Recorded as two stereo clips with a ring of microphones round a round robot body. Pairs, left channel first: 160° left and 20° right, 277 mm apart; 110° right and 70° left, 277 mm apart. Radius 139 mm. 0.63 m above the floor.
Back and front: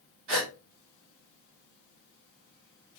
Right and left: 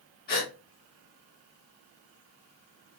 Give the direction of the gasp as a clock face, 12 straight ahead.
2 o'clock.